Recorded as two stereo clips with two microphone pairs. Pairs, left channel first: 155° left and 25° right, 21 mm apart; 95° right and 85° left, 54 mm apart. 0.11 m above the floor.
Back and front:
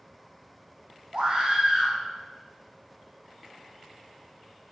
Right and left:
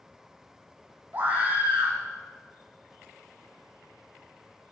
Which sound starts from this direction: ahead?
A scream, at 1.1 s.